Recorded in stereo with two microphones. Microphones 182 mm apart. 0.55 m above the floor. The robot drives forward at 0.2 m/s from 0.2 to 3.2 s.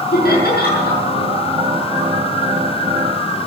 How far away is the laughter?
About 7 m.